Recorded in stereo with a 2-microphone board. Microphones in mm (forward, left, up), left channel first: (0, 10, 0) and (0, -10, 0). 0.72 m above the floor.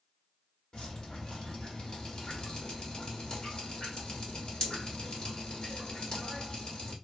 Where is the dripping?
50° left (ahead or behind), 1.4 m.